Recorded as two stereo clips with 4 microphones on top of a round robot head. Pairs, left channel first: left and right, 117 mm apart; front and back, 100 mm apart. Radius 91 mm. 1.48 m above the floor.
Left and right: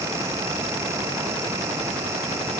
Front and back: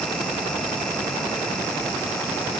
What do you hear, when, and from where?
Only background noise.